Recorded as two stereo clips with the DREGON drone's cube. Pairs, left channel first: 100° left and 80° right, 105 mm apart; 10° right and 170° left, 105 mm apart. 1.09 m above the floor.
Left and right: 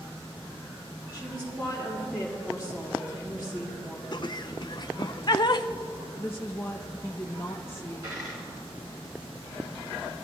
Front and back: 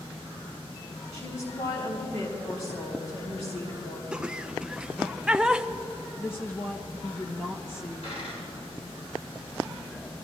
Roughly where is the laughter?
Left.